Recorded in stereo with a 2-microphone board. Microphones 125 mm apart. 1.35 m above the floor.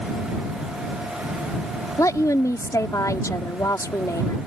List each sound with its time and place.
2.0 s a woman speaking: 25° left (ahead or behind)